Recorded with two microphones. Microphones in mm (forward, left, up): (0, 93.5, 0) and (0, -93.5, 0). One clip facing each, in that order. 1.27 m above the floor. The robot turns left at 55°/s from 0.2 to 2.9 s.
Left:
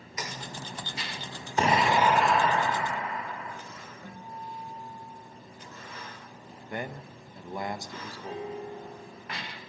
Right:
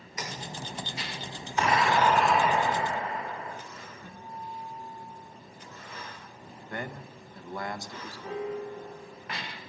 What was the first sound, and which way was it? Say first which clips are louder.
An explosion: left 1 dB; 40° left.